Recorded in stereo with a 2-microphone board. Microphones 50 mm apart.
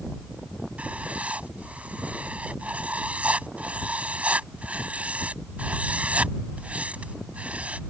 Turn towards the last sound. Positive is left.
turn(degrees=-30)  # may be behind; listen again after turning